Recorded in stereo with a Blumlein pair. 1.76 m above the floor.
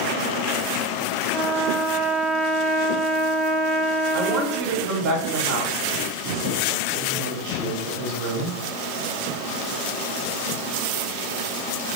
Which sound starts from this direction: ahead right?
A woman speaking, at 4.1 s.